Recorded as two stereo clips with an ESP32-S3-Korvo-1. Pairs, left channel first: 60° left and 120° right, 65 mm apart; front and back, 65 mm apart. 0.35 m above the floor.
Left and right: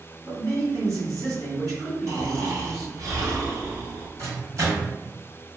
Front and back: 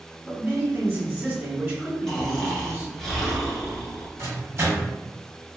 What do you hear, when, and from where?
0.2 s a man speaking: 120° right, 1.9 m
2.1 s snoring: 80° right, 0.9 m
4.2 s a microwave: 140° right, 1.4 m